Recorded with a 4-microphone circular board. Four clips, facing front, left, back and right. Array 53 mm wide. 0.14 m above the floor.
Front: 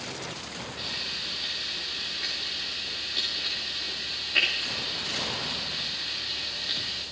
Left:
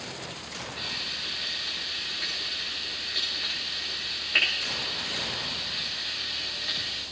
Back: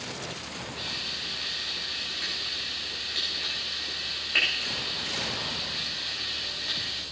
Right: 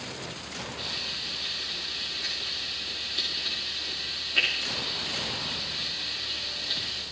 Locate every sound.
0.8 s frying: 115° left, 10 m